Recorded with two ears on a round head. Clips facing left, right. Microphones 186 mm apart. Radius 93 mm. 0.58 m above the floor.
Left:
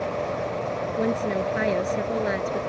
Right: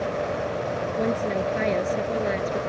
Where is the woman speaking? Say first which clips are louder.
Left 1 dB; 5° left (ahead or behind).